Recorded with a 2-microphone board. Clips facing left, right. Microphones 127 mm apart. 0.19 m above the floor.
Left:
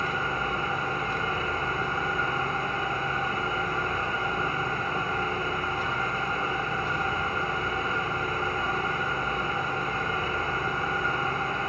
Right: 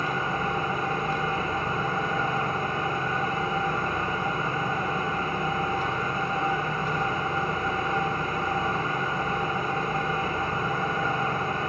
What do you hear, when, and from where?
0.0 s an engine running: 55° right (ahead or behind), 6 m